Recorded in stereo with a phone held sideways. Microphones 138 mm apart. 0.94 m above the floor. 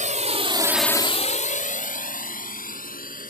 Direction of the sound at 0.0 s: 60° right (ahead or behind).